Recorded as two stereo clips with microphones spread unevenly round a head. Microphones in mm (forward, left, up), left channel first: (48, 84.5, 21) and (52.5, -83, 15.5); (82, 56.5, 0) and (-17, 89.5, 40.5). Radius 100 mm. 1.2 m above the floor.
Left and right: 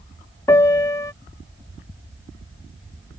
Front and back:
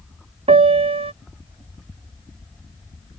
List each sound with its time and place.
0.5 s a piano: 165° left